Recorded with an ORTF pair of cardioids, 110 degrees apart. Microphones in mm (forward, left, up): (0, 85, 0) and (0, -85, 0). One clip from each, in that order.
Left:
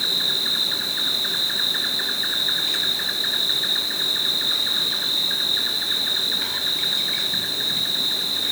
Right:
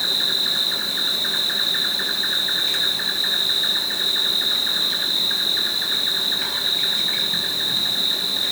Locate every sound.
0.0 s an insect: 5° right, 2.5 m